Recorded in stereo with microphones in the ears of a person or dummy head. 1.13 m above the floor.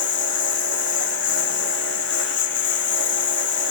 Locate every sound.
0.0 s a lawn mower: 70° left (ahead or behind)